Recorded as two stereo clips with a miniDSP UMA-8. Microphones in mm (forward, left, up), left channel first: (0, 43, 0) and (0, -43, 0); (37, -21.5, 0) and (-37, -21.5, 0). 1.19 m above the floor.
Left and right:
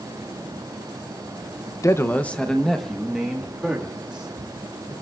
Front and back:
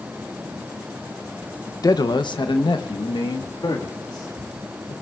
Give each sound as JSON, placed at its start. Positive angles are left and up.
{"t": 1.8, "sound": "a man speaking", "azimuth_deg": 35, "distance_m": 0.7}